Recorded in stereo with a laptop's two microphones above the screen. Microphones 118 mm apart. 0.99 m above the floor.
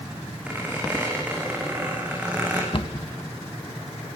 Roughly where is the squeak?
Centre.